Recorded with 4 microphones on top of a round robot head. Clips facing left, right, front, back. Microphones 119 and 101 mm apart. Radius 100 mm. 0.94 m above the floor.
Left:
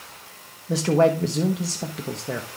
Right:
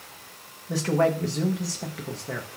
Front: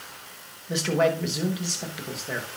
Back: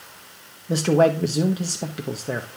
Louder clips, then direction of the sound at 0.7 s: Left 4 dB, back 5 dB; 150° left.